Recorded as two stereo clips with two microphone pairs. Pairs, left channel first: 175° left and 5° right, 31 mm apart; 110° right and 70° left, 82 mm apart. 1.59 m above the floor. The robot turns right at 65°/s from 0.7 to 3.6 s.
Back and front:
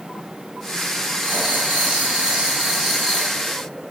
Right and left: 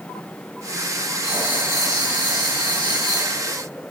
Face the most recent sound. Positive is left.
turn(degrees=135)